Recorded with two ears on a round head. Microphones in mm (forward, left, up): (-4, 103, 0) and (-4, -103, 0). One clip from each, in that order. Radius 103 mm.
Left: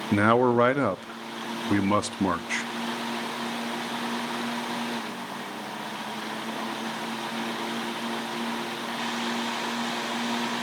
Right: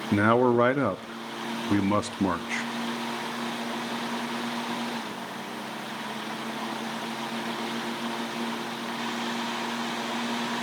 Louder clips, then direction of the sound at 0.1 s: Left 1 dB; 15° left (ahead or behind).